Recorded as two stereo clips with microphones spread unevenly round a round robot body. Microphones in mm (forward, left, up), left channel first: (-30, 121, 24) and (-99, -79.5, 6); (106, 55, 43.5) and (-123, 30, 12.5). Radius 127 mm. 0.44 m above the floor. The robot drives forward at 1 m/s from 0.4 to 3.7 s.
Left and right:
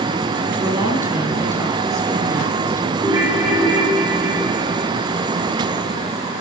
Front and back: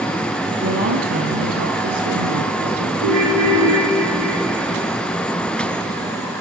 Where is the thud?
No thud in this recording.